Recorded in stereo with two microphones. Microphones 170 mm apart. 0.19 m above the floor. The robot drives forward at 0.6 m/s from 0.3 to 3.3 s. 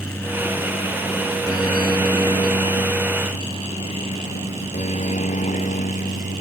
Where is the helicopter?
10° left (ahead or behind); by 6.4 s 45° left (ahead or behind).